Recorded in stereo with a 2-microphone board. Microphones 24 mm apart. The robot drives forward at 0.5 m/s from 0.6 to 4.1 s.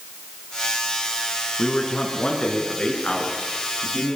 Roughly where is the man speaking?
Left.